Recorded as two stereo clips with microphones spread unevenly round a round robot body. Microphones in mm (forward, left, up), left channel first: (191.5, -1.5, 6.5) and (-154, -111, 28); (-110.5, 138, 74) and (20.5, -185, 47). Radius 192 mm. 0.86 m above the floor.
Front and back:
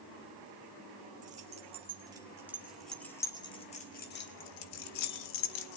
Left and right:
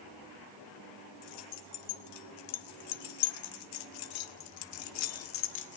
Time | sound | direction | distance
1.2 | keys jangling | 125° left | 2 m